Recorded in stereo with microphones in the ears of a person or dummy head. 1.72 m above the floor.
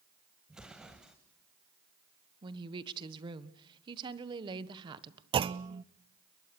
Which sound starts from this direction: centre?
An explosion, at 0.5 s.